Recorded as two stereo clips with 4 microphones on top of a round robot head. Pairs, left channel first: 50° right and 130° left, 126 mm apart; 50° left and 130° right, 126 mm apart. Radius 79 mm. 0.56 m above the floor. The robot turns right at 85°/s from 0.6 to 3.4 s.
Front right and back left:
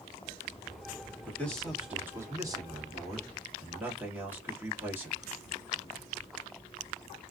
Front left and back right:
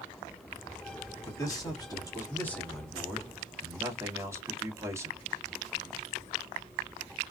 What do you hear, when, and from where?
1.2 s a man speaking: 5° left, 1.3 m; by 5.2 s 170° right, 1.3 m